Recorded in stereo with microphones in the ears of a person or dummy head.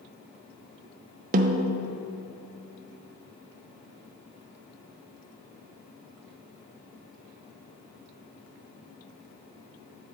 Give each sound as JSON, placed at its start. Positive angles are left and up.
{"t": 1.3, "sound": "a snare drum", "side_deg": -40, "distance_m": 0.5}